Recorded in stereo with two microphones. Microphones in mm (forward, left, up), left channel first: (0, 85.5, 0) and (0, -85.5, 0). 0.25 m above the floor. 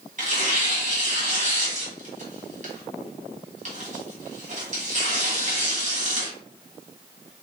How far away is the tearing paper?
About 1.9 m.